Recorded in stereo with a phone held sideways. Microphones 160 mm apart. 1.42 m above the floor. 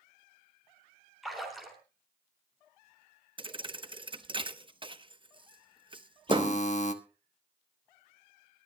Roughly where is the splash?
Centre.